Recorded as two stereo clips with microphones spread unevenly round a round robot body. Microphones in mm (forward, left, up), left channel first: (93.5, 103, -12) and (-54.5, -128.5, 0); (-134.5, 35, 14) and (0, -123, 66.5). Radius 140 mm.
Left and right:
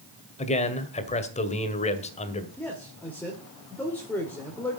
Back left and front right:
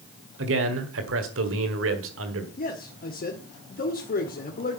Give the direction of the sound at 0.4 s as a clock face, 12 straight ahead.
12 o'clock.